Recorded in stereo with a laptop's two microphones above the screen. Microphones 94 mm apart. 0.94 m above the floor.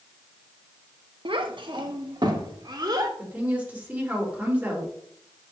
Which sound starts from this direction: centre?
A woman speaking, at 3.2 s.